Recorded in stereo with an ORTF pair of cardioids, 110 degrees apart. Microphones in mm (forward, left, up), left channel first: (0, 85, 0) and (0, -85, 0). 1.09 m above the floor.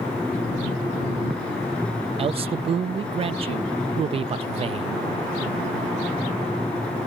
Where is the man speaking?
35° right.